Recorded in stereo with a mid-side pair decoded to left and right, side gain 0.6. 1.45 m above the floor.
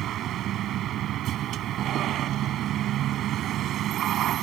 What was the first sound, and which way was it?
A vehicle, 55° right.